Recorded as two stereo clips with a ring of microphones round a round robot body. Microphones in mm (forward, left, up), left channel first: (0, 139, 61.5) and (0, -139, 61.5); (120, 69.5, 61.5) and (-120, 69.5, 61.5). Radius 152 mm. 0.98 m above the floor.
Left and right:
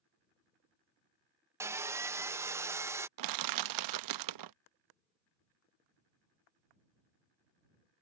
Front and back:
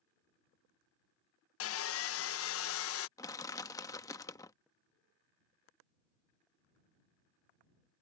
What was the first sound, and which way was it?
Sawing, 10° right.